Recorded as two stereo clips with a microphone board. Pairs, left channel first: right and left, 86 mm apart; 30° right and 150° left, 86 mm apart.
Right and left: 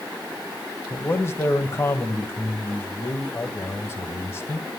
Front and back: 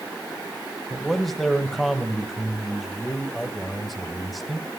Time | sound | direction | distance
0.9 | a man speaking | 120° right | 1.6 m